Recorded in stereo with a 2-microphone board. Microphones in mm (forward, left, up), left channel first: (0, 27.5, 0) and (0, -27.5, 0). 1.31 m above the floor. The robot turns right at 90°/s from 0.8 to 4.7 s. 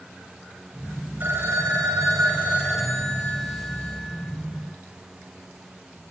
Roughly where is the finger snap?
No finger snap in this recording.